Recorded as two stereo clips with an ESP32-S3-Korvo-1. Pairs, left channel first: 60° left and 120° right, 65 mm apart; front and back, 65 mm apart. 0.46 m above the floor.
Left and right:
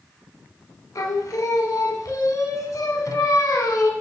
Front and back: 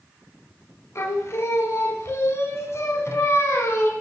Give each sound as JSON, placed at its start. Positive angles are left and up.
{"t": 0.9, "sound": "singing", "azimuth_deg": 40, "distance_m": 0.9}